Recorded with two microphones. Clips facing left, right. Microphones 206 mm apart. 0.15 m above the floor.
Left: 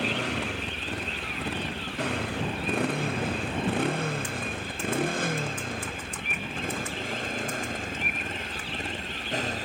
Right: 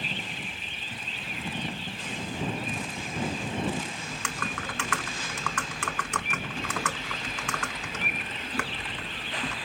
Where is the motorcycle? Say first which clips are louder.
Left 9 dB; 80° left; by 9.7 s 45° left (ahead or behind).